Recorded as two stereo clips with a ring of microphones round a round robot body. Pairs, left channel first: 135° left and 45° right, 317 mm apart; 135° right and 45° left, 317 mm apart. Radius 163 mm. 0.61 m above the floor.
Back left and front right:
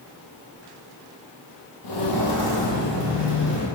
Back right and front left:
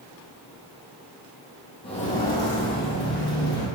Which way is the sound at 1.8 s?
150° left.